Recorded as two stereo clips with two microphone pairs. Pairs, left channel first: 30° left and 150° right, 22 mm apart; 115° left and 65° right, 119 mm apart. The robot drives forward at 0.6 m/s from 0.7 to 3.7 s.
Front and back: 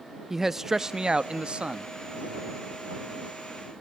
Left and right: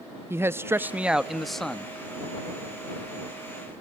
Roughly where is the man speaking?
Right.